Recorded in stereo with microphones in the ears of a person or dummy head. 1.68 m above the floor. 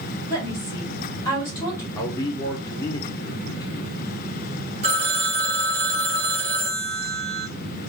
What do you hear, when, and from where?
0.3 s a woman speaking: 15° left (ahead or behind), 1.6 m
1.9 s a man speaking: 15° left (ahead or behind), 0.7 m
4.8 s a phone ringing: 35° right (ahead or behind), 1.5 m